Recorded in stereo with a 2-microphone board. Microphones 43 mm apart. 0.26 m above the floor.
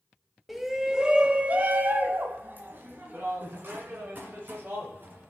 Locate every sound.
0.5 s a shout: centre (ahead or behind), 1.1 m; by 5.3 s 50° right (ahead or behind), 3.5 m